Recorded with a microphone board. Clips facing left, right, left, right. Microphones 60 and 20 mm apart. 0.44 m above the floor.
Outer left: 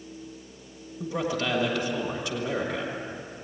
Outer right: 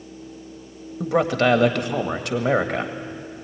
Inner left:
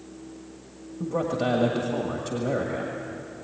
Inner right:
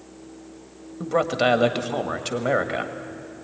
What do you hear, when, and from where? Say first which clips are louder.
1.0 s a man speaking: outer right 9 dB, inner right 5 dB; 65° right (ahead or behind), 1.7 m